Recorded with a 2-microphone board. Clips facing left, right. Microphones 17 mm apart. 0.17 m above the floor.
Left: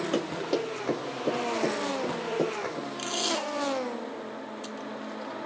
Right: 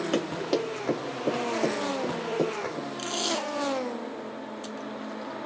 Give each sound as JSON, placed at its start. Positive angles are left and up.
{"t": 0.1, "sound": "running footsteps", "side_deg": -25, "distance_m": 2.0}
{"t": 3.0, "sound": "tape being pulled", "side_deg": 0, "distance_m": 1.1}